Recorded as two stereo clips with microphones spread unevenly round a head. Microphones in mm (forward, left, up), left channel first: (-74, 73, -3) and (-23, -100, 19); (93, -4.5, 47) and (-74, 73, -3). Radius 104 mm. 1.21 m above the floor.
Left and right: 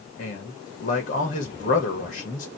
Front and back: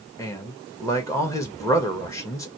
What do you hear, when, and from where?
0.2 s a man speaking: 50° left, 1.8 m